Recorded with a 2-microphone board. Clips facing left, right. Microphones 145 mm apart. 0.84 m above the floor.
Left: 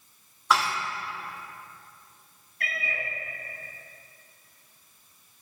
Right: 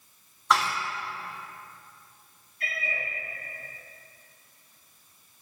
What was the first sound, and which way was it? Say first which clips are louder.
Dishes clattering: even; centre (ahead or behind).